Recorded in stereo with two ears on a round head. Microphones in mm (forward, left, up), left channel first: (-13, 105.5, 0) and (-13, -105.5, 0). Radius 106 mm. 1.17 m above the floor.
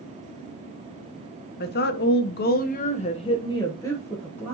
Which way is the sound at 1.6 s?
40° left (ahead or behind).